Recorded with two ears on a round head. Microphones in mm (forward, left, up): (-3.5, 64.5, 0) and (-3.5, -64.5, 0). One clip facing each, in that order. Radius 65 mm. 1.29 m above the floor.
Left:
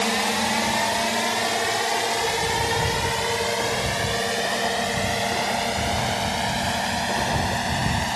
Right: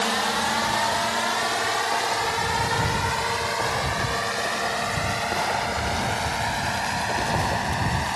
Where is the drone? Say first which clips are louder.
Left 1 dB; 20° left (ahead or behind); by 8.2 s 35° left (ahead or behind).